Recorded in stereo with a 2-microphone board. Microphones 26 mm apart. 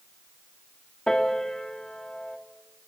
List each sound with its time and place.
1.1 s a piano: 25° left (ahead or behind), 1.8 m